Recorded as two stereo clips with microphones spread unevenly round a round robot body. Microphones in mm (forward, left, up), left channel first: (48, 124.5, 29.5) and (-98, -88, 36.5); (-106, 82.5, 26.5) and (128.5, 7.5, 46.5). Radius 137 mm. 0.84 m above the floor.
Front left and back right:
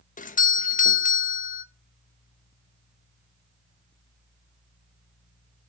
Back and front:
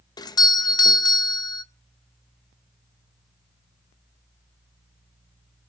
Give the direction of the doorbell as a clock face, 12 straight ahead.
9 o'clock.